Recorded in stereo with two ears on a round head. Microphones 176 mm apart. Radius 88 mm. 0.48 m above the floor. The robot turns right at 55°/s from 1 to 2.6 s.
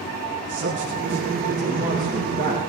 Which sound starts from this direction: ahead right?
A man speaking, at 0.5 s.